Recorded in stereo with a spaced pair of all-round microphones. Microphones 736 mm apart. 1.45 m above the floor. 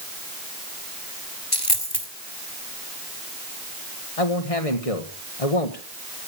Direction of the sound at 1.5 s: 30° left (ahead or behind).